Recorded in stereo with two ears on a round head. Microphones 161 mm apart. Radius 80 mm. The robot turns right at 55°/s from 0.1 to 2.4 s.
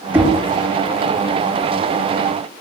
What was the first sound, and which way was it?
Knocking, 15° right (ahead or behind).